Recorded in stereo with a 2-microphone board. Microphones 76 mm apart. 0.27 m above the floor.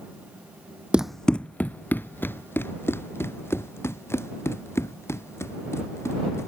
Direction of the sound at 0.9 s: 15° right (ahead or behind).